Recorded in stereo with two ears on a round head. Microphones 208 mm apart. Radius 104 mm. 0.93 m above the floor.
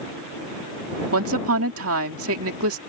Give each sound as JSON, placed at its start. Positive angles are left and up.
{"t": 1.1, "sound": "a woman speaking", "side_deg": -65}